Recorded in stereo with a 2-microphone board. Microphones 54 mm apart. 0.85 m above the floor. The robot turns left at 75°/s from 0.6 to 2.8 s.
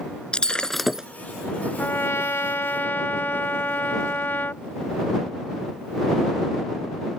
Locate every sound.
0.3 s breaking glass: 15° left; by 1.1 s 20° right
1.8 s a trumpet: 130° left; by 4.6 s 55° left